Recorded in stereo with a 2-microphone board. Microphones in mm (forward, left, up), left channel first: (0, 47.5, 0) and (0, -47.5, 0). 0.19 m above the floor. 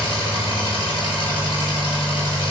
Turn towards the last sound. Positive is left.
turn(degrees=70)  # may be behind; listen again after turning